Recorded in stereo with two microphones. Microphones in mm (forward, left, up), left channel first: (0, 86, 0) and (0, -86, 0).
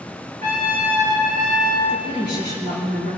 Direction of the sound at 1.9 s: 85° right.